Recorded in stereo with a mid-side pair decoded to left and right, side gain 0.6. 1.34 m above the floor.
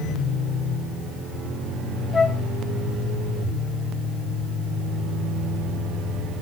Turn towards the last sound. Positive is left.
turn(degrees=15)